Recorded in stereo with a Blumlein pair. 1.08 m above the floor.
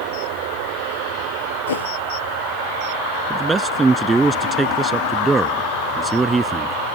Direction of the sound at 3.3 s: 15° right.